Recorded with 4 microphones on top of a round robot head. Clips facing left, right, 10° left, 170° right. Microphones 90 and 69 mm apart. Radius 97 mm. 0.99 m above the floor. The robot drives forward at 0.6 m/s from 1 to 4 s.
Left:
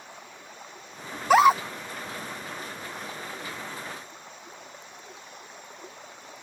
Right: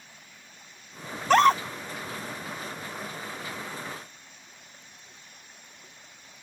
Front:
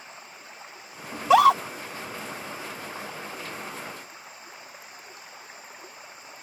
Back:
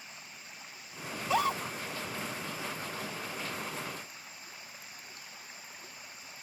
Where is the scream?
5° left; by 1.6 s 10° left.